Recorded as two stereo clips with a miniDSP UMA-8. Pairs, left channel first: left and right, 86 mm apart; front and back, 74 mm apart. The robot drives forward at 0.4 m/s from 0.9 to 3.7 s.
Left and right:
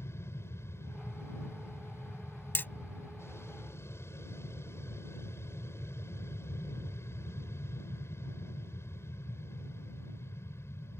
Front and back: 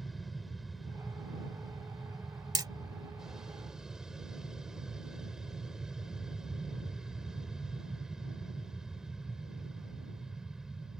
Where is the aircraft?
90° left; by 11.0 s 105° left.